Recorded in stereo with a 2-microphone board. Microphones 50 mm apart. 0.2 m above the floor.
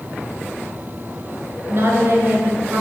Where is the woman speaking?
50° right (ahead or behind), 2.5 m.